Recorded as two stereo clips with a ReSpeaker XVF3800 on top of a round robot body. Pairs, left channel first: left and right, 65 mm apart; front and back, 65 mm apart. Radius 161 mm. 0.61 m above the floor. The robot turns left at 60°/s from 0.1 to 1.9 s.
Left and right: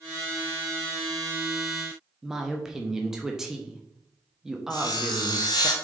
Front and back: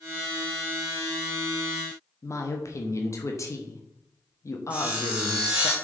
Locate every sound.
2.2 s a woman speaking: 10° right, 1.3 m
4.7 s sawing: 105° left, 1.2 m